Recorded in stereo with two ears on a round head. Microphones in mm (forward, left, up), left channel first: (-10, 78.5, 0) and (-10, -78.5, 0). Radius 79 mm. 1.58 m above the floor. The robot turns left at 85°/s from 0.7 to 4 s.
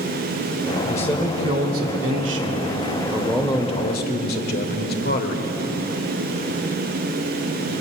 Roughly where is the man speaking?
Ahead left.